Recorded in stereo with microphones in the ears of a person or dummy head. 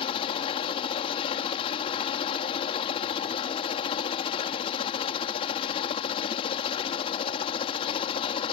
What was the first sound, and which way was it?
A helicopter, 30° left (ahead or behind).